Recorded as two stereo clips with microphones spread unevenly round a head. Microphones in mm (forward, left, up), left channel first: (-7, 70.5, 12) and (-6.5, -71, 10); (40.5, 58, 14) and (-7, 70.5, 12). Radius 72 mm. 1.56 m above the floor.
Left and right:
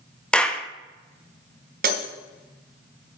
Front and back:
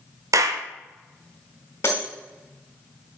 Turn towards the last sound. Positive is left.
turn(degrees=-70)